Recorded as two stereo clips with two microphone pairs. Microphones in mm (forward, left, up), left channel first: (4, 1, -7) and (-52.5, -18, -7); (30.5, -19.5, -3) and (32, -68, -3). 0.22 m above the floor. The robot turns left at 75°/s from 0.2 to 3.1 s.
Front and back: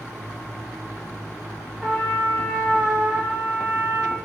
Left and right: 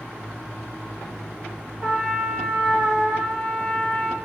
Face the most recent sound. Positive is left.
turn(degrees=-170)